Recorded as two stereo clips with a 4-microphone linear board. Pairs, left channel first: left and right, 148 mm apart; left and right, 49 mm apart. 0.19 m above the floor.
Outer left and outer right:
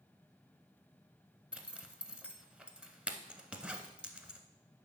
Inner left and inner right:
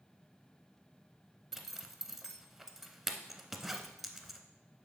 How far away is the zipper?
About 0.7 m.